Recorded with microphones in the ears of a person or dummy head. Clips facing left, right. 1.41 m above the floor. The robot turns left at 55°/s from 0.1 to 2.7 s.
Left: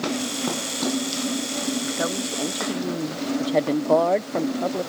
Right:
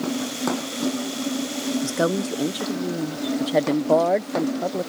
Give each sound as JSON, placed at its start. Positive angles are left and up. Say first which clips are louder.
{"t": 1.8, "sound": "a woman speaking", "louder": "right 4 dB", "azimuth_deg": -130}